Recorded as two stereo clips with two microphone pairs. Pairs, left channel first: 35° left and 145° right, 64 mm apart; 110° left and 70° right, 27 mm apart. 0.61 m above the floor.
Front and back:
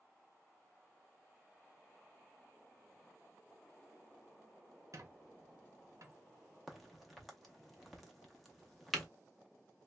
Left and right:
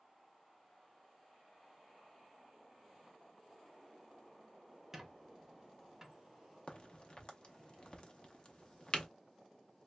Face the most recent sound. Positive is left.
turn(degrees=125)